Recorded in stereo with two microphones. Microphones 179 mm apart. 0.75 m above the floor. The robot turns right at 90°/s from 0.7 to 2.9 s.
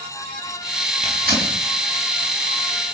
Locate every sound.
1.0 s tearing paper: 35° right (ahead or behind), 3.5 m; by 1.6 s 85° right, 3.5 m